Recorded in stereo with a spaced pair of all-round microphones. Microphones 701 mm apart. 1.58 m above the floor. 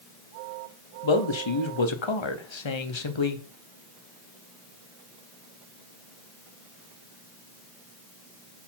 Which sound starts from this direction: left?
A man speaking, at 1.0 s.